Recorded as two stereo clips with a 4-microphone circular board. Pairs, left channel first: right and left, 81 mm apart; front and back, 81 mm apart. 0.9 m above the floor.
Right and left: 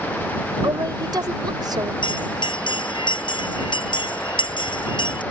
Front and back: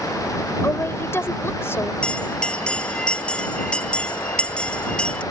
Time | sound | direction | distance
0.6 | a woman speaking | 60° left | ?
2.0 | a bell | 75° right | ?